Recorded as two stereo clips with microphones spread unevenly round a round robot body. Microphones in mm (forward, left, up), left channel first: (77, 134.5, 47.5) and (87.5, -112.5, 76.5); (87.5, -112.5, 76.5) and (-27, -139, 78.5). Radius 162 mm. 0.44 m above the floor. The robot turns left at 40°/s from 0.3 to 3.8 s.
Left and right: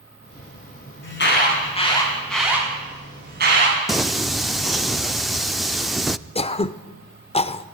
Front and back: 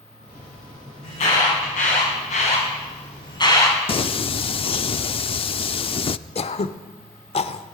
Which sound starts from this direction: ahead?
Singing, at 3.9 s.